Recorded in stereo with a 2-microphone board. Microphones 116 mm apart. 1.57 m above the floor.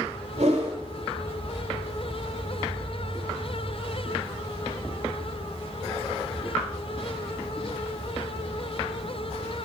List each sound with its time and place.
0.4 s a whoosh: 70° right (ahead or behind), 4.5 m